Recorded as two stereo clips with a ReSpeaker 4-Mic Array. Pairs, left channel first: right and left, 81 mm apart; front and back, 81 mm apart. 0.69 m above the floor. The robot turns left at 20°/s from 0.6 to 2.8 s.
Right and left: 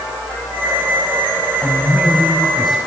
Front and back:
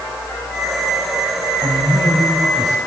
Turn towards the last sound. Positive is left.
turn(degrees=175)